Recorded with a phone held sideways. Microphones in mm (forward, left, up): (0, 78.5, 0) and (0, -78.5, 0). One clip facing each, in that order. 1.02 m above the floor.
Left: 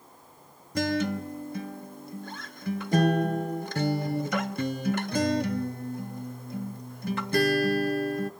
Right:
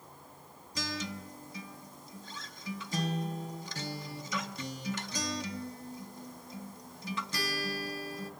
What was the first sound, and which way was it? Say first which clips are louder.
A guitar: left 12 dB; 60° left (ahead or behind).